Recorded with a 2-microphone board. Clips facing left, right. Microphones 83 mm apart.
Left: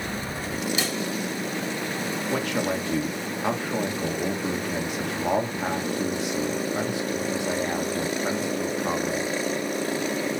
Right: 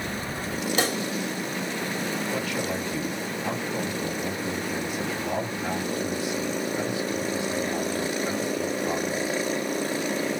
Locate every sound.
0.8 s a pop: 60° right (ahead or behind), 1.9 m
2.3 s a man speaking: 85° left, 1.6 m